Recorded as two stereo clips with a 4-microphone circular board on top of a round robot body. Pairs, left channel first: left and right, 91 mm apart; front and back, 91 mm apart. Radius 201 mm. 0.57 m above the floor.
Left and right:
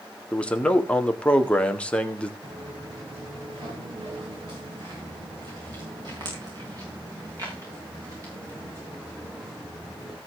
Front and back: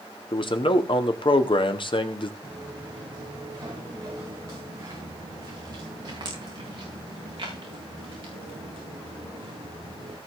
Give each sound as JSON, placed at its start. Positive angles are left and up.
{"t": 0.3, "sound": "a man speaking", "azimuth_deg": 15, "distance_m": 1.9}
{"t": 2.4, "sound": "footsteps", "azimuth_deg": -115, "distance_m": 5.5}